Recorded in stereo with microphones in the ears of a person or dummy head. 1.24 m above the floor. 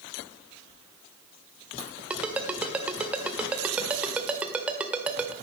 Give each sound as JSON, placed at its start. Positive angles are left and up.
{"t": 0.7, "sound": "a dropped coin", "side_deg": -75, "distance_m": 4.0}
{"t": 2.1, "sound": "a ringtone", "side_deg": -5, "distance_m": 1.8}